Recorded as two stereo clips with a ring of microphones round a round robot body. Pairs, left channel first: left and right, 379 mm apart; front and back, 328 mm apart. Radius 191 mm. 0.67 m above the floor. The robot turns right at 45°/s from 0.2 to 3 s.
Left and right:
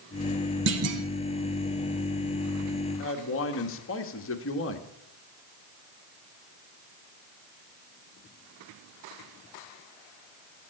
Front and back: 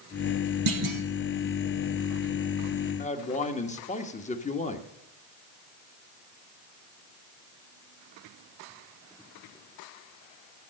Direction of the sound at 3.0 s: 55° left.